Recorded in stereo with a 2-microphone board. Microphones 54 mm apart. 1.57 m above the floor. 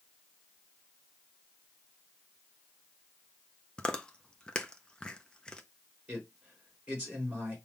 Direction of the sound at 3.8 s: 15° left (ahead or behind).